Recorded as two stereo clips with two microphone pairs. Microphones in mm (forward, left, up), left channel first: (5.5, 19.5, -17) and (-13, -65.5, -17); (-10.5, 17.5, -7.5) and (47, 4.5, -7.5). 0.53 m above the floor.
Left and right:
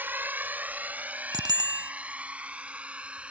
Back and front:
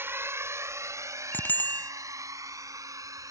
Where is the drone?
40° right; by 3.3 s 25° right.